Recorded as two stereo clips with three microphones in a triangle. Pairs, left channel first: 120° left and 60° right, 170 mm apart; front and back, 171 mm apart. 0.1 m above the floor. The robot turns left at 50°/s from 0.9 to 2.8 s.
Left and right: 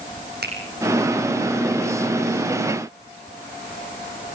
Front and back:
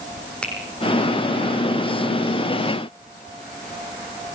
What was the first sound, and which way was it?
A finger snap, 85° right.